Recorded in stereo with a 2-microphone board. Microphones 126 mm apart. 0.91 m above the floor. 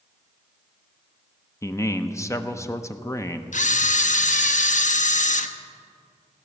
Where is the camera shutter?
75° left (ahead or behind), 0.6 m.